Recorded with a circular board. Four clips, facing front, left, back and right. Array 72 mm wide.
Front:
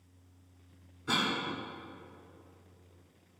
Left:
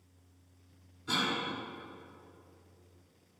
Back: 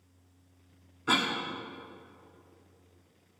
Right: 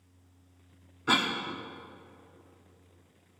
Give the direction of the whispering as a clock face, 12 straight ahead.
No whispering in this recording.